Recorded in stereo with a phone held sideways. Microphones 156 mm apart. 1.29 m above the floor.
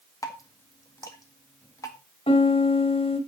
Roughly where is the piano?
Left.